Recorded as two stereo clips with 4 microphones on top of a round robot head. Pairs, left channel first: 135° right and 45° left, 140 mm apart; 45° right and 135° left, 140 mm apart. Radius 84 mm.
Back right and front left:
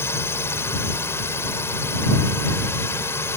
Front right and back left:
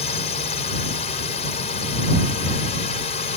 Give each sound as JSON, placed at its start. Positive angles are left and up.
{"t": 0.0, "sound": "a drone", "azimuth_deg": -65}